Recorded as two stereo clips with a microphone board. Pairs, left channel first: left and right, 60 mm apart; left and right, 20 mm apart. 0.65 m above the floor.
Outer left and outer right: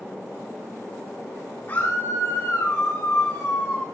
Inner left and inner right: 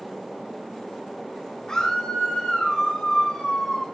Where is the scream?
40° left (ahead or behind), 7.5 m.